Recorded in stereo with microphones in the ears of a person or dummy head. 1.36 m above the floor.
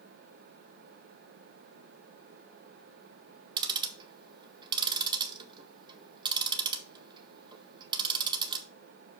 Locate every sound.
3.6 s ticking: 15° right (ahead or behind), 1.0 m